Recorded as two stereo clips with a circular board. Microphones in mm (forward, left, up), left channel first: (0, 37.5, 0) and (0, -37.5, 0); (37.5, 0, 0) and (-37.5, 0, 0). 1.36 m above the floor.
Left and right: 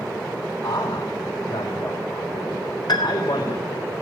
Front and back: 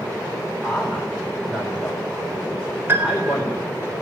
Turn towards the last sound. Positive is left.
turn(degrees=120)